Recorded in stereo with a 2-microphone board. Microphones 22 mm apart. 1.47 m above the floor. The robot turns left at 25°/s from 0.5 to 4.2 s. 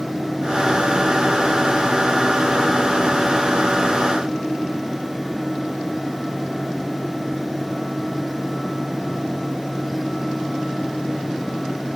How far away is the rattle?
No rattle in this recording.